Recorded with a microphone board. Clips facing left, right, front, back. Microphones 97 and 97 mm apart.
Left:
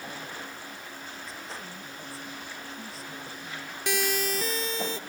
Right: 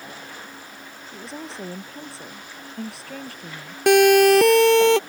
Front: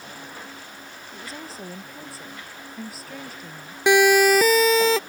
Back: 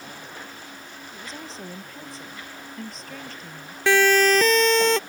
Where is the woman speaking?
80° right.